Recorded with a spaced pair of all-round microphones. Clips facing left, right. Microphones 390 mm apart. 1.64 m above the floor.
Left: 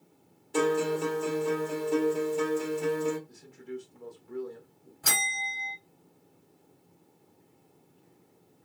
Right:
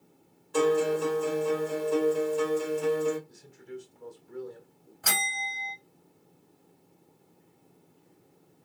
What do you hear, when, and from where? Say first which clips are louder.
0.5 s a guitar: right 2 dB; 40° left (ahead or behind), 1.6 m
3.3 s a man speaking: left 3 dB; 70° left (ahead or behind), 1.1 m
5.0 s a bell: right 1 dB; 50° left (ahead or behind), 2.0 m